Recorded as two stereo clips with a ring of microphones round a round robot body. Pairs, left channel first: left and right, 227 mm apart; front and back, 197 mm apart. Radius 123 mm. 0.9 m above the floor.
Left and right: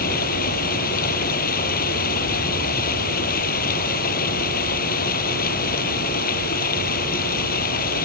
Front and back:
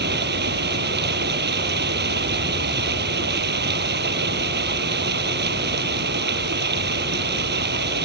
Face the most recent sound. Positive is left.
turn(degrees=145)